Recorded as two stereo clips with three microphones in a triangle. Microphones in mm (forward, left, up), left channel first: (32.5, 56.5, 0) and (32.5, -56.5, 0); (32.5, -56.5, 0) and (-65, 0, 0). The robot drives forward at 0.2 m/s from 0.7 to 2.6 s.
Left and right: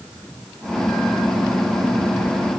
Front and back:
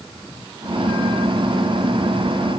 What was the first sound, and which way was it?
Only background noise.